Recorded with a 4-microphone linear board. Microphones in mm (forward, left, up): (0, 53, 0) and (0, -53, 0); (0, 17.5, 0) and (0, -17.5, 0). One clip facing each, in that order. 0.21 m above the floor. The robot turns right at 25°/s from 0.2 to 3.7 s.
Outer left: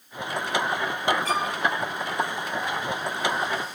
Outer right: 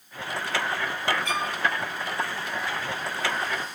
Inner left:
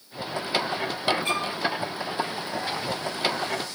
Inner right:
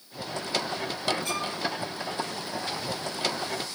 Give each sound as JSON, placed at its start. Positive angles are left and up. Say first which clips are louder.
{"t": 1.2, "sound": "a violin", "louder": "outer left 3 dB, inner left 4 dB", "side_deg": 35, "distance_m": 2.0}